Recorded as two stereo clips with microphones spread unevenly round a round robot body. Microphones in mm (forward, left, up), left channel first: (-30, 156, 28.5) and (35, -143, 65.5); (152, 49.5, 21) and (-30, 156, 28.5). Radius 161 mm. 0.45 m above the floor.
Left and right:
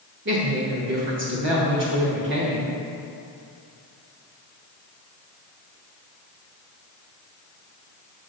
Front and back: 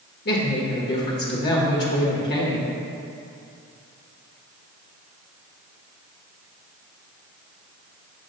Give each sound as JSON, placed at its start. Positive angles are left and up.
{"t": 0.2, "sound": "a woman speaking", "azimuth_deg": -30, "distance_m": 1.2}